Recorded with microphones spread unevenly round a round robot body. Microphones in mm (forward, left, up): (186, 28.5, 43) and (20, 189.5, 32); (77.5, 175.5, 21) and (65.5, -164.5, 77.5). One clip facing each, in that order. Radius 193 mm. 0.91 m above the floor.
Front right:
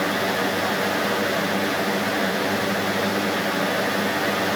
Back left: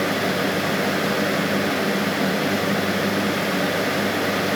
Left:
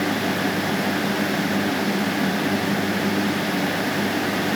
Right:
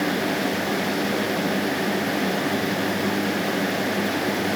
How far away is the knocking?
I don't hear knocking.